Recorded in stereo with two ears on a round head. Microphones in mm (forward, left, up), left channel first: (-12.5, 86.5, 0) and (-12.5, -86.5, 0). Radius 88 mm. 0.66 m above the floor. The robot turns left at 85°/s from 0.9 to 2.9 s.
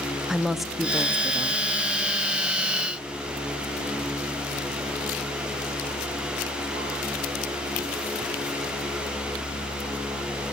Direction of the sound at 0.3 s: Centre (ahead or behind).